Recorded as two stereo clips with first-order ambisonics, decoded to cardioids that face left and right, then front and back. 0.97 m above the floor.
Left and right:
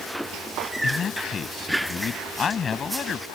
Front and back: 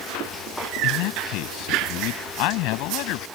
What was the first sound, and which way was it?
A man speaking, 25° left.